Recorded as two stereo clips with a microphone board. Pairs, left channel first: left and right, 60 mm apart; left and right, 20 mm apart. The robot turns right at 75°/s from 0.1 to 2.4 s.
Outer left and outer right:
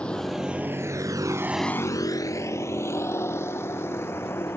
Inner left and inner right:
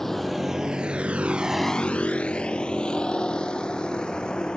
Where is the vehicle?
15° left (ahead or behind); by 4.6 s 40° left (ahead or behind).